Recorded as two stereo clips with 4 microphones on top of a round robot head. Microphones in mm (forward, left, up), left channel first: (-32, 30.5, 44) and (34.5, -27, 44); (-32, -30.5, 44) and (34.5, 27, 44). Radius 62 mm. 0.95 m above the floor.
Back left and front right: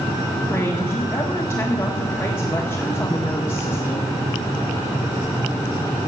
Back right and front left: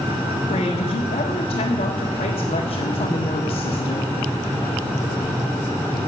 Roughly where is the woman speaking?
Behind right.